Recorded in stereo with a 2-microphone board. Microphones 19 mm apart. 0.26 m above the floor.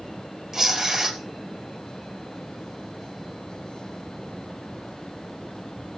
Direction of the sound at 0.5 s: 20° right (ahead or behind).